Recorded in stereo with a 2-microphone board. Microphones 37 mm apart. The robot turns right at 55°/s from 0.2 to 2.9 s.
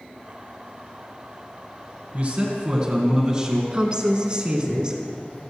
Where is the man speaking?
80° right, 2.0 m; by 3.6 s 40° right, 2.0 m.